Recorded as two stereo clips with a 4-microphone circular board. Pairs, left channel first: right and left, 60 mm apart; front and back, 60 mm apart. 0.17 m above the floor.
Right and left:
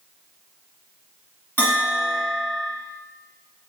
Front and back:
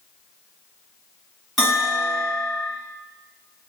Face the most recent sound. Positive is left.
turn(degrees=-90)